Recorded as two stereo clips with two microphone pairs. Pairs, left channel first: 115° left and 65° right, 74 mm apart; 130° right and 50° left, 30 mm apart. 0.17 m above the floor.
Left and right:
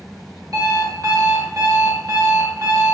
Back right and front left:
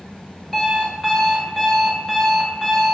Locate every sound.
0.5 s an alarm clock: 50° right, 1.3 m